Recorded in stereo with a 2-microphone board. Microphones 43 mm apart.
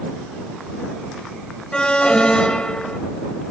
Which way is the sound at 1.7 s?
20° left (ahead or behind).